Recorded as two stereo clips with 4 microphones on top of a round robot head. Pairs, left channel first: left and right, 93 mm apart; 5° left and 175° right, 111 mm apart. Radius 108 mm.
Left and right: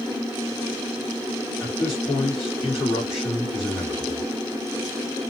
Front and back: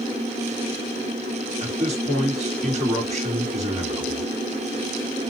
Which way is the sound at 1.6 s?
175° right.